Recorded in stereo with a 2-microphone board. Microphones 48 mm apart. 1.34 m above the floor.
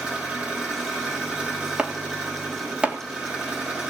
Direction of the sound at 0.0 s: 25° right (ahead or behind).